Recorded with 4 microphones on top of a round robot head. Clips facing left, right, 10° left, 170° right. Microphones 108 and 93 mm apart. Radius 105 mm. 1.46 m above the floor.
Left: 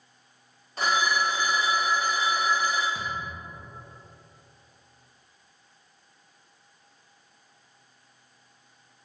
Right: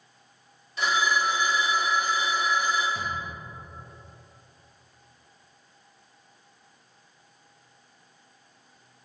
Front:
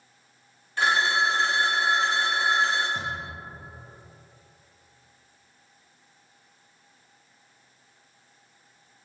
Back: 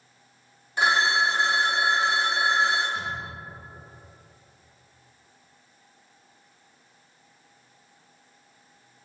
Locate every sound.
0.8 s a phone ringing: 130° left, 0.5 m
3.0 s a thud: 15° left, 0.9 m